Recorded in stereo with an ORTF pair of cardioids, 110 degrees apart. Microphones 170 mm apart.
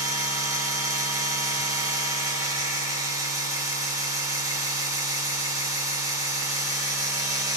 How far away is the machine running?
About 0.7 m.